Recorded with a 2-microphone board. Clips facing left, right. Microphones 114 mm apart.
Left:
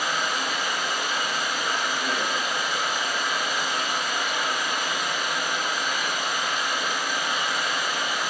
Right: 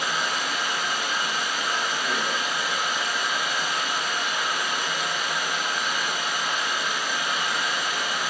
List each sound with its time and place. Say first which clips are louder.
0.0 s running water: left 1 dB; 55° left (ahead or behind), 1.7 m